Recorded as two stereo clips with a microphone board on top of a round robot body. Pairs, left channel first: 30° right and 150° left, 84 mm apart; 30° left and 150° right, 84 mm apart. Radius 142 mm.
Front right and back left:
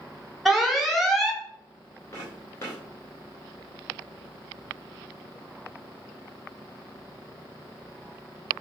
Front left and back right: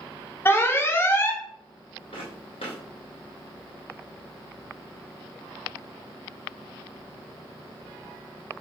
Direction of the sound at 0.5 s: 65° left.